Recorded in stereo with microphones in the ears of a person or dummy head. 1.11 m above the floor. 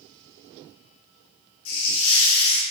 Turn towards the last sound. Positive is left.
turn(degrees=75)  # may be behind; listen again after turning